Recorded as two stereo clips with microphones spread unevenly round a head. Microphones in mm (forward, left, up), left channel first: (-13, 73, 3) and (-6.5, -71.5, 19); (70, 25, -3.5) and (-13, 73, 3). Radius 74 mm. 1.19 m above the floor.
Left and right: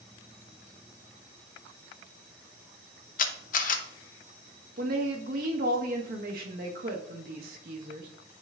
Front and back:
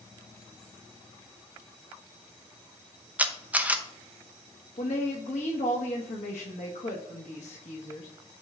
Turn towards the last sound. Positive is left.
turn(degrees=-50)